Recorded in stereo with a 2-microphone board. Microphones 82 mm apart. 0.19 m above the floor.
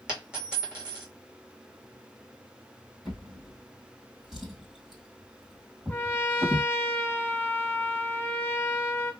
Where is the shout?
No shout in this recording.